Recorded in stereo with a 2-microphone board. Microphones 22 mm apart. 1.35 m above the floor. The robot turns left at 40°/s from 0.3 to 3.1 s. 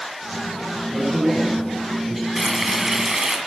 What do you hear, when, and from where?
0.9 s a man speaking: 35° left, 8 m; by 2.3 s 15° right, 8 m
2.4 s frying: 5° right (ahead or behind), 1.8 m; by 3.4 s 25° right (ahead or behind), 1.8 m